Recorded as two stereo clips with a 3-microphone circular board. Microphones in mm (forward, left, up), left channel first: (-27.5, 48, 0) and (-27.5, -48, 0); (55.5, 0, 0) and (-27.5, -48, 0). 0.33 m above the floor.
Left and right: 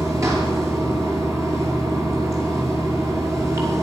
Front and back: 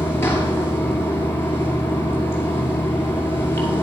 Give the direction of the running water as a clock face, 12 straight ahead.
1 o'clock.